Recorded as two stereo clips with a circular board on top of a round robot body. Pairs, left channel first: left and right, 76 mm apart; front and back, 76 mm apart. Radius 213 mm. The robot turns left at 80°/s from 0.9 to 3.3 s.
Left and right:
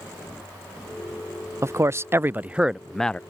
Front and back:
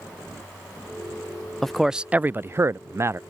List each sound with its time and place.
1.6 s a man speaking: 80° right; by 3.2 s 155° left